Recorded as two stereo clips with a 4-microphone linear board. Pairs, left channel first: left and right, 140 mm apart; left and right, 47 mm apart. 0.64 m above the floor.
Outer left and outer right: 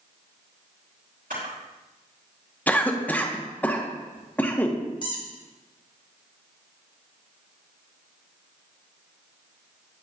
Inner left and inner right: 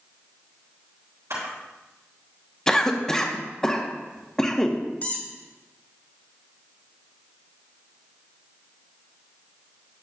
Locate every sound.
1.3 s a camera shutter: 85° right, 3 m
2.7 s a cough: 15° left (ahead or behind), 0.8 m
5.0 s a squeak: 35° left (ahead or behind), 1.4 m